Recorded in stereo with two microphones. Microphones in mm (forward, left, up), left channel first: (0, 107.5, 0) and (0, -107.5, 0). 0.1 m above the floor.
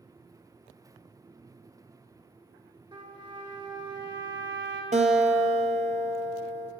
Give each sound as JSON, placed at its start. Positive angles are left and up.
{"t": 2.9, "sound": "a trumpet", "side_deg": -20, "distance_m": 1.2}
{"t": 4.9, "sound": "a guitar", "side_deg": -35, "distance_m": 0.7}